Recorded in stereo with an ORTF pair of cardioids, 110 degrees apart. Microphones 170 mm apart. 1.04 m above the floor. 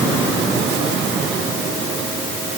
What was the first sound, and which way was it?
Only background noise.